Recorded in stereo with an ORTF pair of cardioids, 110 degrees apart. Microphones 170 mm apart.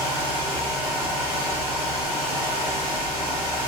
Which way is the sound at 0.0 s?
10° right.